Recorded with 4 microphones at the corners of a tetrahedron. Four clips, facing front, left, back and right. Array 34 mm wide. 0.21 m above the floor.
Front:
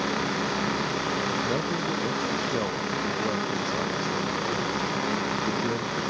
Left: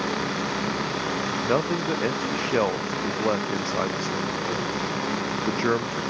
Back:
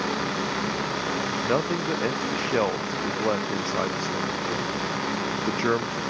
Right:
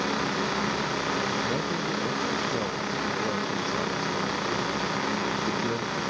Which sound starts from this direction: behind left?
A man speaking, at 1.4 s.